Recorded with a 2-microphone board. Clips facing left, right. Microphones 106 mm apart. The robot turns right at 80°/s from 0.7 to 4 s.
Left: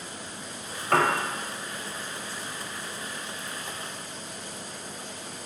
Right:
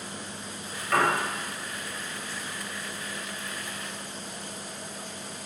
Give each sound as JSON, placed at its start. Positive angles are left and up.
{"t": 0.9, "sound": "a piano", "side_deg": 55, "distance_m": 0.5}